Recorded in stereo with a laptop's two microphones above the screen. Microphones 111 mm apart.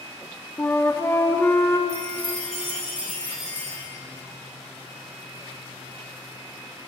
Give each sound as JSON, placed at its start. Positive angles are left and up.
{"t": 0.6, "sound": "a flute", "side_deg": 20, "distance_m": 1.0}
{"t": 1.9, "sound": "a chime", "side_deg": -75, "distance_m": 3.0}